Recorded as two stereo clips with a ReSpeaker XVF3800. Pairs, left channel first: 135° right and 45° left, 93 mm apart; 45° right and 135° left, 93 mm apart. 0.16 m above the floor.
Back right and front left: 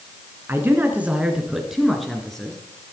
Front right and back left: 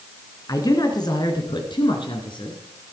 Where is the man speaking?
10° right, 2.5 m; by 2.6 s 55° right, 3 m.